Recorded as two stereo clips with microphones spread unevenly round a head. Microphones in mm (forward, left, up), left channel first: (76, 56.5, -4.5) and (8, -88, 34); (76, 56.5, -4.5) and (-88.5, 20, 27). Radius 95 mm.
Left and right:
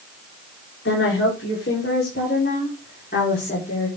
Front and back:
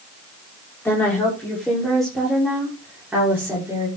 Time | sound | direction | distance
0.8 | a woman speaking | 95° left | 5.5 m